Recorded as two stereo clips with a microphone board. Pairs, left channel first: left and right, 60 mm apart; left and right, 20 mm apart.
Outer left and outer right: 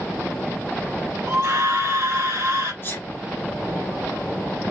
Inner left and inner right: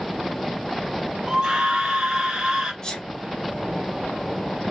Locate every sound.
1.3 s a scream: 45° right (ahead or behind), 0.8 m
2.8 s a sneeze: 35° left (ahead or behind), 1.3 m